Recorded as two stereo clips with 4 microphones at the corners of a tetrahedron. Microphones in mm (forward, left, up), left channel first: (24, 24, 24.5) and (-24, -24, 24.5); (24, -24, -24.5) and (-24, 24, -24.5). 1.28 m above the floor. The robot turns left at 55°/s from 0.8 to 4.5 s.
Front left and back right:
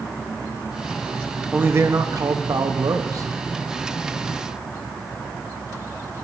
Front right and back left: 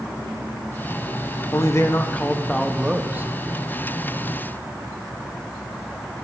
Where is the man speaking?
75° right, 0.5 m; by 3.3 s 170° right, 0.5 m.